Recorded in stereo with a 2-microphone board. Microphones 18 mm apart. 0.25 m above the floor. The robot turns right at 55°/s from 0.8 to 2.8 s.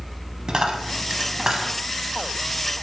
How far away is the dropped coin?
About 0.7 m.